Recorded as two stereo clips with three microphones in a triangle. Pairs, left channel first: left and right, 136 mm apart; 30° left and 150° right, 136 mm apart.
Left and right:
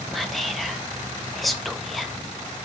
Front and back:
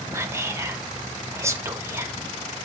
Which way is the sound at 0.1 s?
Straight behind.